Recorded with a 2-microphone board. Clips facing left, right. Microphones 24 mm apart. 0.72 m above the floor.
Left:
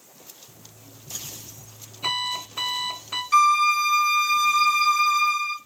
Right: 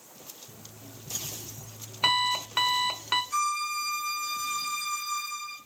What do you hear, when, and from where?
0.5 s an alarm clock: 80° right, 1.2 m
3.3 s a violin: 55° left (ahead or behind), 0.7 m